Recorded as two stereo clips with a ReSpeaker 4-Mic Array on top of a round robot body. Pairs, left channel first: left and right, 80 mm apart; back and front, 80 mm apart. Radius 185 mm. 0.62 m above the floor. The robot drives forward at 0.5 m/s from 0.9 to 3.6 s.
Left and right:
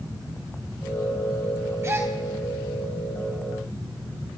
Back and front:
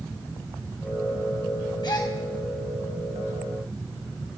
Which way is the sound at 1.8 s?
150° right.